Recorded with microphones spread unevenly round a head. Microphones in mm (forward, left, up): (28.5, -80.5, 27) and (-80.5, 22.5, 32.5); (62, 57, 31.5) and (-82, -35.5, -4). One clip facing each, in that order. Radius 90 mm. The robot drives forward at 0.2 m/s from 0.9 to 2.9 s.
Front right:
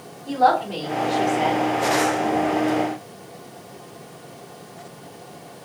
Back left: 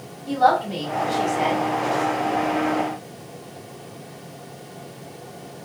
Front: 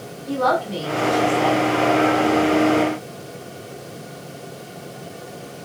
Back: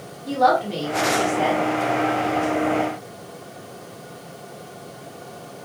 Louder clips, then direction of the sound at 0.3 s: Even, back 2 dB; 130° right.